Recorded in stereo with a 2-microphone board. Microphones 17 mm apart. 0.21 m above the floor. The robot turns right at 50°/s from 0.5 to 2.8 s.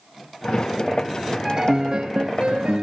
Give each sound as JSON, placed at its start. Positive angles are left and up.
{"t": 1.4, "sound": "a piano", "azimuth_deg": -145, "distance_m": 0.6}